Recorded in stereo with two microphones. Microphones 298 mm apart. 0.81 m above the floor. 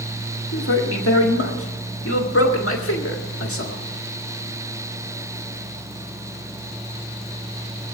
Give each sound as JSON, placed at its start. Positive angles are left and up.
{"t": 0.5, "sound": "a man speaking", "side_deg": 45, "distance_m": 1.5}